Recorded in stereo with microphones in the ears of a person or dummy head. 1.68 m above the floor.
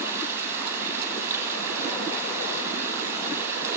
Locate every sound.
0.0 s running water: 15° right (ahead or behind), 8.5 m